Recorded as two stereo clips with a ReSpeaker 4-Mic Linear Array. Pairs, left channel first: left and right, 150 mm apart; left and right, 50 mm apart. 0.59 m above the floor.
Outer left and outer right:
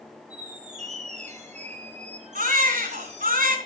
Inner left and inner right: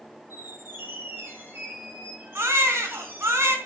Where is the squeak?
50° right (ahead or behind), 4.5 m.